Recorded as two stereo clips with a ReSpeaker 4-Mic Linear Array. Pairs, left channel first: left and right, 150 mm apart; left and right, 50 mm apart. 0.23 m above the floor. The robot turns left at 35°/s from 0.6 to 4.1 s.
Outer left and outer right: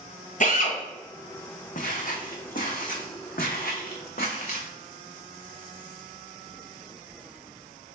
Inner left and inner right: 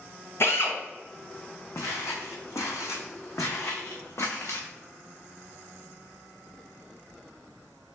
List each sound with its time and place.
0.4 s a drill: 60° left (ahead or behind), 1.0 m
1.8 s footsteps: 65° left (ahead or behind), 1.0 m; by 4.7 s 70° left (ahead or behind), 1.4 m